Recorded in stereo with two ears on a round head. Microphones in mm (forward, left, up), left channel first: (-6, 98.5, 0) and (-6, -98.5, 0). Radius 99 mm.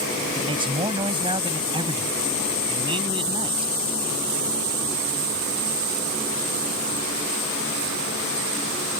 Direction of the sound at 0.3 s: 25° right (ahead or behind).